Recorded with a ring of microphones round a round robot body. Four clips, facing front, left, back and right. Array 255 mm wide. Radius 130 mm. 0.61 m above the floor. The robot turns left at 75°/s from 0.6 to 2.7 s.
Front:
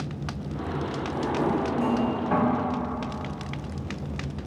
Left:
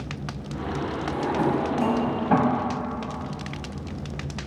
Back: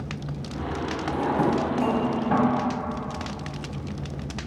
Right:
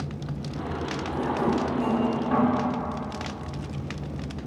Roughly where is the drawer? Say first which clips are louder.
Left 1 dB, back 3 dB; behind.